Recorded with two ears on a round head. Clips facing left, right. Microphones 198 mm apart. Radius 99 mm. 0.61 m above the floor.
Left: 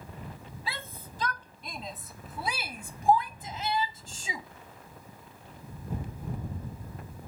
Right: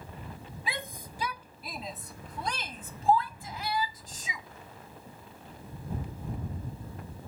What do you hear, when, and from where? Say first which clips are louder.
0.7 s a shout: right 3 dB; 15° right (ahead or behind); by 4.5 s 30° left (ahead or behind)